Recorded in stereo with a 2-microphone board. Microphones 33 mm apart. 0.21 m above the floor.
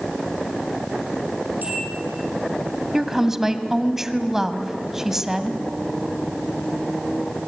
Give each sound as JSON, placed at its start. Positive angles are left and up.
{"t": 1.6, "sound": "a bell", "side_deg": -60, "distance_m": 8.0}
{"t": 2.9, "sound": "a woman speaking", "side_deg": -15, "distance_m": 1.6}